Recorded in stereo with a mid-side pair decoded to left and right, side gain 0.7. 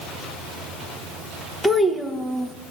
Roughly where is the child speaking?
Ahead.